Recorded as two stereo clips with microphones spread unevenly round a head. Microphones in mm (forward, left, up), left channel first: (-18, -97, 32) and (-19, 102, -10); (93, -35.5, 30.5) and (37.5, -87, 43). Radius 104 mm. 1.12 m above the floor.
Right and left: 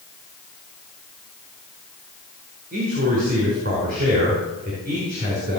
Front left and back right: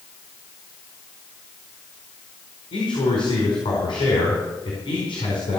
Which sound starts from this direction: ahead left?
A man speaking, at 2.7 s.